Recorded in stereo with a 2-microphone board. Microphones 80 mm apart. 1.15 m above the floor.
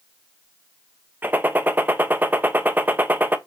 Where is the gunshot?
25° right (ahead or behind), 0.7 m.